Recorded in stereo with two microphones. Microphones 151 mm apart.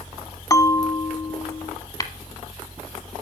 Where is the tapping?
25° left (ahead or behind), 0.7 m.